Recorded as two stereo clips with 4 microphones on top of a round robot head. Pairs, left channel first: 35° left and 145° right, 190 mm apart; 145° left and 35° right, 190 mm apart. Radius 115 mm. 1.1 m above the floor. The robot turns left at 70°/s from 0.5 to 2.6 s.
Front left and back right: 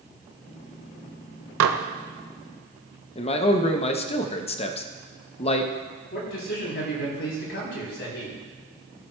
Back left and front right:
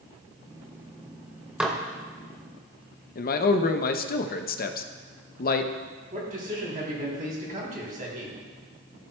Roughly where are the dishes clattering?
Behind right.